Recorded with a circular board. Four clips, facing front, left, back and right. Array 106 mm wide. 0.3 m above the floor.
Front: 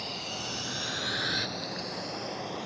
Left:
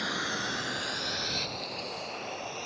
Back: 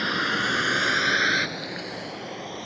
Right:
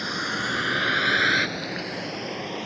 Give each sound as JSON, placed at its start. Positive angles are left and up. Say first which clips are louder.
{"t": 0.0, "sound": "a vehicle", "louder": "right 4 dB, back 13 dB", "azimuth_deg": -170}